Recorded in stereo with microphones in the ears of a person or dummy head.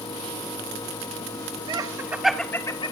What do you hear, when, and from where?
1.7 s laughter: 20° right (ahead or behind), 2 m; by 2.9 s 25° left (ahead or behind), 1.7 m